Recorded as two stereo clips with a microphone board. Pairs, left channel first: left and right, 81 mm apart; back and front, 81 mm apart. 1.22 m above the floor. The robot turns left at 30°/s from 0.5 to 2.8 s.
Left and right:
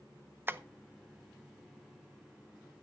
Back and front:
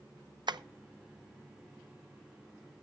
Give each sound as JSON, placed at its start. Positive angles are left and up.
{"t": 0.5, "sound": "tapping", "azimuth_deg": -25, "distance_m": 0.6}